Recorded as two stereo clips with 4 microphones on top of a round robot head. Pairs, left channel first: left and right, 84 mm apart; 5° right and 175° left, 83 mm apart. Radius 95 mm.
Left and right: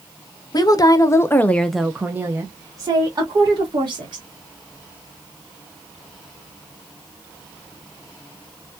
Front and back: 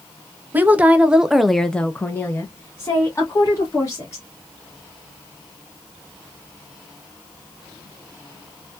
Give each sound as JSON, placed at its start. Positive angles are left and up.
{"t": 0.5, "sound": "a woman speaking", "azimuth_deg": 110, "distance_m": 0.8}